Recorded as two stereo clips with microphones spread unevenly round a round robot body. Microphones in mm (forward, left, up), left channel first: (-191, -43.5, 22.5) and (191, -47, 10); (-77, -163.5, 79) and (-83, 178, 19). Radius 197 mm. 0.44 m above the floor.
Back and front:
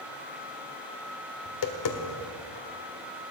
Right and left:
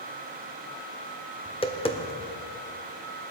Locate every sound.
1.4 s tapping: 170° right, 1.6 m